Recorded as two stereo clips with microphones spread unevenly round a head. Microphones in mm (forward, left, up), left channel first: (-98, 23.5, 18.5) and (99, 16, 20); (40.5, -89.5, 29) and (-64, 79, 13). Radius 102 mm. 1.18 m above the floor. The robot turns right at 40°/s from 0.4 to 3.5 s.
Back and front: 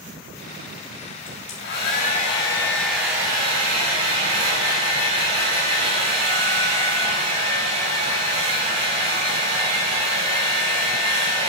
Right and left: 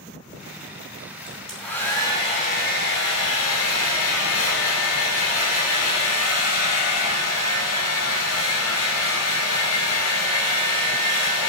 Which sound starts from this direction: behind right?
A hair dryer, at 1.3 s.